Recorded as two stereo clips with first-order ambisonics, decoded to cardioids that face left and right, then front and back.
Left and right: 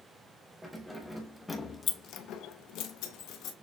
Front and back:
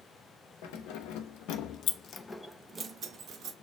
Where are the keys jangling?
5° right, 0.9 m; by 3.5 s 130° left, 0.8 m.